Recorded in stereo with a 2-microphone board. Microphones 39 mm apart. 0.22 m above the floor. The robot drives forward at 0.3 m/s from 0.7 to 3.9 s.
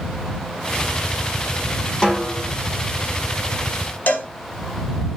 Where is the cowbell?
45° left (ahead or behind), 0.6 m.